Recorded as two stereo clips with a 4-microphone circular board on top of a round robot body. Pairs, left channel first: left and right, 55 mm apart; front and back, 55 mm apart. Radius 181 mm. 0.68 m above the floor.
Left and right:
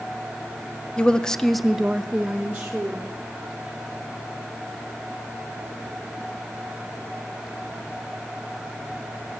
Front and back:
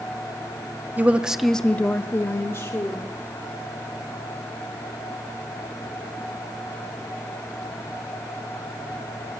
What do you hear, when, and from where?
1.0 s a woman speaking: 150° left, 1.0 m; by 3.1 s 20° right, 1.8 m